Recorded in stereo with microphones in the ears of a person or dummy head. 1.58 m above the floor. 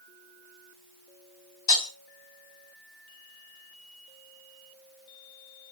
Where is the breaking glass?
25° left (ahead or behind), 2.0 m.